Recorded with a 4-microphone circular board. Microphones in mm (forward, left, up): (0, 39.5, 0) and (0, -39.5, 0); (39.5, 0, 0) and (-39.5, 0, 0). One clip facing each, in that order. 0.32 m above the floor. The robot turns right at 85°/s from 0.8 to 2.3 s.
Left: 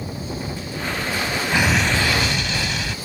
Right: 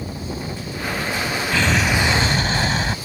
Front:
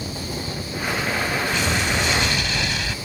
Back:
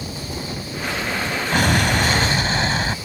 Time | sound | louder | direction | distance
1.5 | an explosion | even, back 4 dB | 160° left | ?